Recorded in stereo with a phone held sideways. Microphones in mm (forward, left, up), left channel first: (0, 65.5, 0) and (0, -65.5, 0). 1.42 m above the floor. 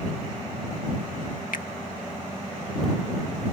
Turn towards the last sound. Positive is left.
turn(degrees=80)